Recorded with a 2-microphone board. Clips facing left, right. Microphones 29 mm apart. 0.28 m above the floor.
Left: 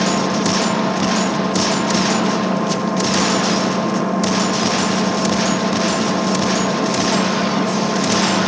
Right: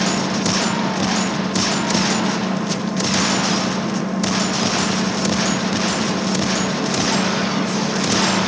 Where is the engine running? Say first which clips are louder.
Left 2 dB; 30° left (ahead or behind).